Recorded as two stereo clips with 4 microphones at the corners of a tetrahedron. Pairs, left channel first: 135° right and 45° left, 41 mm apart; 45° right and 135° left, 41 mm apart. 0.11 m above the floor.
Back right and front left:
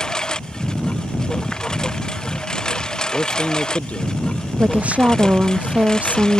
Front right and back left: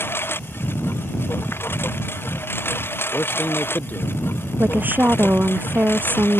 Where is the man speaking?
80° right.